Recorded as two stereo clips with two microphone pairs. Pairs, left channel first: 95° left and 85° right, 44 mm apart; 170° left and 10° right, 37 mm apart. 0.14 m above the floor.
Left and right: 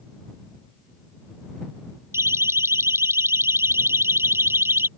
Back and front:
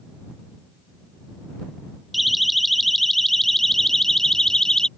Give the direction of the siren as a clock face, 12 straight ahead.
3 o'clock.